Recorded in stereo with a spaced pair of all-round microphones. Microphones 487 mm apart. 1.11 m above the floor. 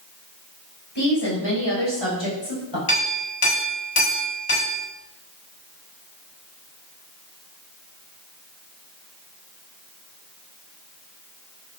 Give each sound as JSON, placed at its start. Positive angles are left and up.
{"t": 0.9, "sound": "a woman speaking", "side_deg": 55, "distance_m": 5.0}
{"t": 2.9, "sound": "a clink", "side_deg": 90, "distance_m": 5.0}